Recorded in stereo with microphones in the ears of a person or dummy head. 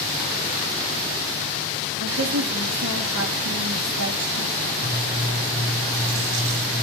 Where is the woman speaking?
85° right, 2.5 m.